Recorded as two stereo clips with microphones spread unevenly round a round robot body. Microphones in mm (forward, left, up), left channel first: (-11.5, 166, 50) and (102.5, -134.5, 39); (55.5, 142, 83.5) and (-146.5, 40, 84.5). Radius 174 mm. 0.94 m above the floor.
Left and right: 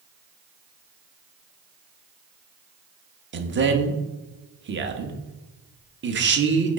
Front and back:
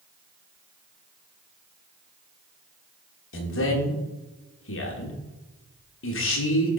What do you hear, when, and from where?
3.3 s a man speaking: 15° right, 1.0 m